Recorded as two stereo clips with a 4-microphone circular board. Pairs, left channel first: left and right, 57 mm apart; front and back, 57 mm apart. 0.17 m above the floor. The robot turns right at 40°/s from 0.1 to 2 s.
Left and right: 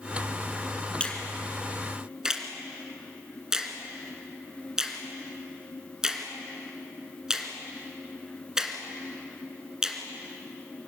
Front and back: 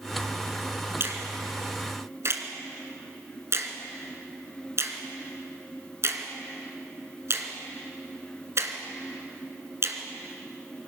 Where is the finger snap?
155° left, 2 m; by 10.0 s 165° right, 2 m.